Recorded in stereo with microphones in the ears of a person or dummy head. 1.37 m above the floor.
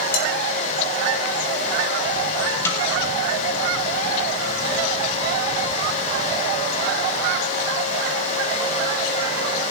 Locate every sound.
0.1 s dishes clattering: 45° left (ahead or behind), 5 m
2.6 s a snare drum: 15° left (ahead or behind), 3.5 m